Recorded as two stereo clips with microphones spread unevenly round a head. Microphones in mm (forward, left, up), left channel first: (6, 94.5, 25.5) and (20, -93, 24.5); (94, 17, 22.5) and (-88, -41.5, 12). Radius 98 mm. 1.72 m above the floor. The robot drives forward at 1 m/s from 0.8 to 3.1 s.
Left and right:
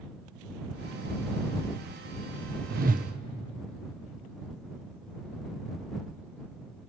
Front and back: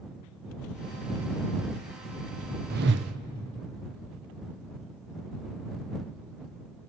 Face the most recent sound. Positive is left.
turn(degrees=-140)